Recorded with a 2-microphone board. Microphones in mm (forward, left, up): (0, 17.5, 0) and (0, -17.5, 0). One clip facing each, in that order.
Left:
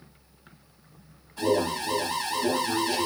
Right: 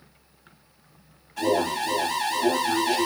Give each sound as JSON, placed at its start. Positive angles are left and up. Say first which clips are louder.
{"t": 1.4, "sound": "an alarm", "louder": "right 2 dB", "side_deg": -80, "distance_m": 6.0}